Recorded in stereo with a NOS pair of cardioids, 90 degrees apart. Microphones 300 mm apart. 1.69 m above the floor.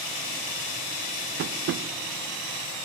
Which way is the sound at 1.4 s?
45° right.